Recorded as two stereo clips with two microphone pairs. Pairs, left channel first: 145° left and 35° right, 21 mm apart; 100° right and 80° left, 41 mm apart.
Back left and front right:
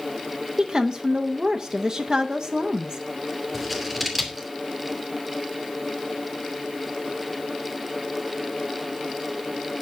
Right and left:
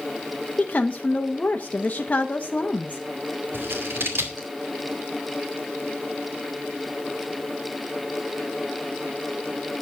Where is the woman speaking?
65° right, 0.9 m.